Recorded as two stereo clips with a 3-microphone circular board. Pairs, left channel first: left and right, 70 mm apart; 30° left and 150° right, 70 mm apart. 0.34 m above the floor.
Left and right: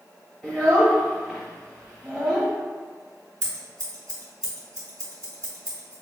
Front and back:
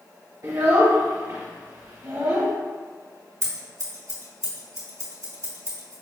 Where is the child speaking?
170° right, 1.1 m.